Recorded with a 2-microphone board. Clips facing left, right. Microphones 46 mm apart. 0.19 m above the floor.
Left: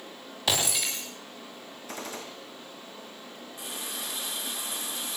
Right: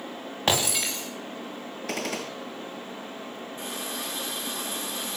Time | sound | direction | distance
0.5 | breaking glass | 45° right (ahead or behind) | 8 m
1.9 | a gunshot | 70° right (ahead or behind) | 1.6 m
3.6 | a running tap | 45° right (ahead or behind) | 9.5 m